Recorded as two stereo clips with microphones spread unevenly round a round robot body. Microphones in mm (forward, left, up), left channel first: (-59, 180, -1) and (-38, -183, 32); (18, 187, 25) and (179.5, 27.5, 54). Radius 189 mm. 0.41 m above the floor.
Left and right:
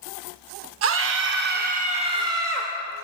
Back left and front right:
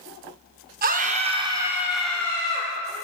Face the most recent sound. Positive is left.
turn(degrees=-175)